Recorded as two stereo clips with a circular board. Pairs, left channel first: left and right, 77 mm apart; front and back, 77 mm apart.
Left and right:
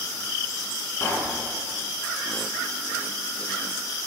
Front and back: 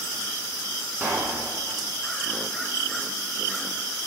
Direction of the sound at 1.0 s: 130° left.